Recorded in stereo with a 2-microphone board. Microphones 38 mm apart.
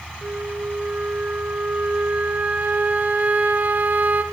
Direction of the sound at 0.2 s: 50° right (ahead or behind).